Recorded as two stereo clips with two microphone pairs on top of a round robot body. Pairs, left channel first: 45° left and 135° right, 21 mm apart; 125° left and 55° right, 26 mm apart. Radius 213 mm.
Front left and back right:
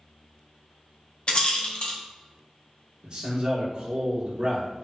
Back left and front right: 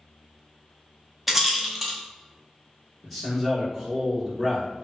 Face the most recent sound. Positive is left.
turn(degrees=-150)